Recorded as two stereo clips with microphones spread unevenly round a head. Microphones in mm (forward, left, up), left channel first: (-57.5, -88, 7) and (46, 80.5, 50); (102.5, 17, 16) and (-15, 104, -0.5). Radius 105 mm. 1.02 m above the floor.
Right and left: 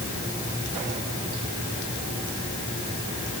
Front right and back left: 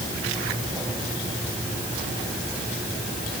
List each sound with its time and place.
Only background noise.